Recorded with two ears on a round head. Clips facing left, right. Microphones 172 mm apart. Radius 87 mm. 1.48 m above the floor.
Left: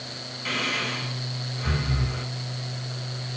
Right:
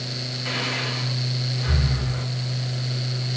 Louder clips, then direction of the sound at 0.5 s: Even; 30° left (ahead or behind).